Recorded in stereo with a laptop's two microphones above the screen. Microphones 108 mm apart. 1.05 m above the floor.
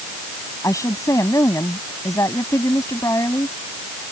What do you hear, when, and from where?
0.6 s a woman speaking: 30° left (ahead or behind)